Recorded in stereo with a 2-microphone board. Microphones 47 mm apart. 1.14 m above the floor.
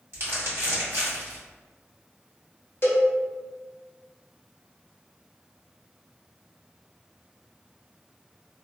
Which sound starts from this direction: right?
Crumpling, at 0.1 s.